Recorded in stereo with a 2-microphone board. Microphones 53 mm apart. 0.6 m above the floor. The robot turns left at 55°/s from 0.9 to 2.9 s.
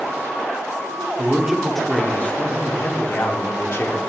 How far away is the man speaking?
About 1.1 m.